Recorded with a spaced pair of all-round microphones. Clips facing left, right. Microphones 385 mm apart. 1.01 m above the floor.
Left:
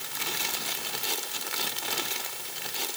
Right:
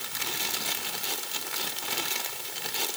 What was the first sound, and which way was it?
Only background noise.